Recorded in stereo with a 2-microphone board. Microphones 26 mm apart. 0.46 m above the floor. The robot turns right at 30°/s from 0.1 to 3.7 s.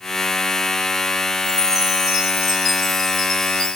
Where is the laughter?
No laughter in this recording.